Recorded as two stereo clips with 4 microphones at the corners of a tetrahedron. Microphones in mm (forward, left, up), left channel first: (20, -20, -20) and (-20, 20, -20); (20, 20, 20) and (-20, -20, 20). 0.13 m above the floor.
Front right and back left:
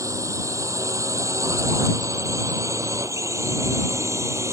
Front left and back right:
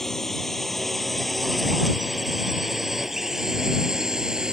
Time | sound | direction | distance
0.0 | a drone | 130° left | ?